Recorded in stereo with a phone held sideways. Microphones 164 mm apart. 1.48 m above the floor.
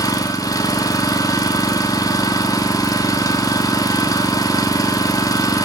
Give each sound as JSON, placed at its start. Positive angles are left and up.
{"t": 0.0, "sound": "an engine running", "side_deg": 20, "distance_m": 2.0}